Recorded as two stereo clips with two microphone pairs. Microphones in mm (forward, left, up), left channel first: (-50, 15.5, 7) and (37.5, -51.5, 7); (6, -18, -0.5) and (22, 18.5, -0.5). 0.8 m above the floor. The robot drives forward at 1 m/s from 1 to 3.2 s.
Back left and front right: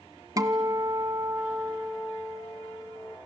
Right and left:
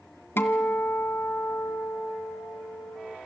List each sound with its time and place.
0.4 s a guitar: 95° right, 1.7 m; by 3.2 s 145° right, 3 m